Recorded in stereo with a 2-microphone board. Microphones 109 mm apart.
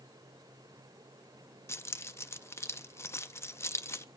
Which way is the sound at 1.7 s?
25° left (ahead or behind).